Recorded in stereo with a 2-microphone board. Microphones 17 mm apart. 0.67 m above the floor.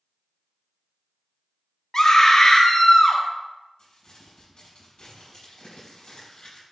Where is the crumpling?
65° left (ahead or behind), 3 m.